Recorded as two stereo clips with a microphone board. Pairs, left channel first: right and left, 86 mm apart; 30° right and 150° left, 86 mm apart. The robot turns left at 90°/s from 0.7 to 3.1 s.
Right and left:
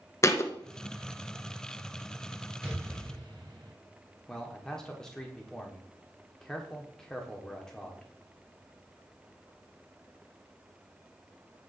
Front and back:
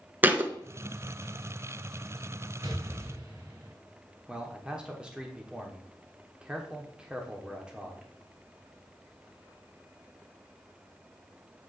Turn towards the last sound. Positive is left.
turn(degrees=-155)